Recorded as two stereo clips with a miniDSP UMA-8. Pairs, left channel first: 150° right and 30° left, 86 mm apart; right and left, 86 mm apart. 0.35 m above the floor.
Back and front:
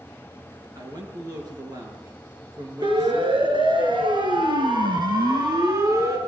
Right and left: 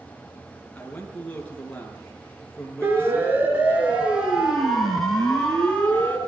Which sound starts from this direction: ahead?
A man speaking, at 0.8 s.